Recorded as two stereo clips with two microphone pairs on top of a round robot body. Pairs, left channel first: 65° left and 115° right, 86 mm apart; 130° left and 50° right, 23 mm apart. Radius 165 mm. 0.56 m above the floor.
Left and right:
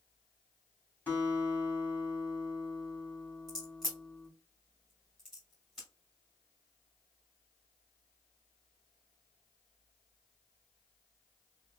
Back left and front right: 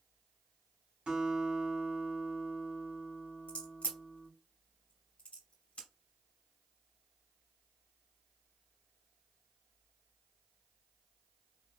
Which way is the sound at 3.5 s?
155° left.